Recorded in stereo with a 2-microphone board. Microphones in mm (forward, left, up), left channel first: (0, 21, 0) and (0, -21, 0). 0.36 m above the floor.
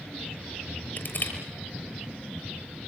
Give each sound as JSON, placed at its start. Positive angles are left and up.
{"t": 1.0, "sound": "crushing", "side_deg": 50, "distance_m": 6.5}